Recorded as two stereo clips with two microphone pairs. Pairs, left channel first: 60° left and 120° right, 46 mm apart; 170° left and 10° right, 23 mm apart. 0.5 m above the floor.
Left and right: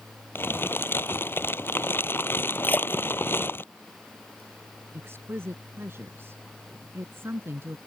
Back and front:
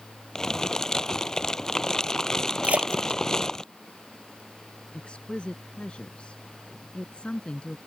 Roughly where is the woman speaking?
Behind right.